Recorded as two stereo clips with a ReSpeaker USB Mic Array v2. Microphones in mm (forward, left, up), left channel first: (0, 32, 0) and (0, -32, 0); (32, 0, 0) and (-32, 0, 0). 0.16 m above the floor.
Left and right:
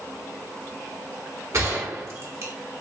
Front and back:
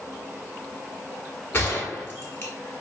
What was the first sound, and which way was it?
A gunshot, 50° right.